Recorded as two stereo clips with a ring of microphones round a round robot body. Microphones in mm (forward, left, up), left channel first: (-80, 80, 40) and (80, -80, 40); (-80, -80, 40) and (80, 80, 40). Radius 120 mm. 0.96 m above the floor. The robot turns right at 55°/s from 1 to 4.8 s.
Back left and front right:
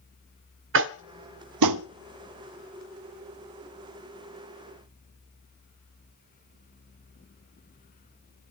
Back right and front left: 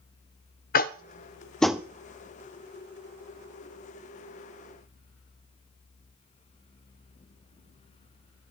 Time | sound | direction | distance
0.7 | tapping | 80° right | 0.6 m